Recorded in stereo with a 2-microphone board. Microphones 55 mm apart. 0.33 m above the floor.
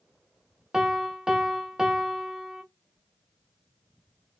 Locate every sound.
0.7 s a piano: 10° right (ahead or behind), 0.5 m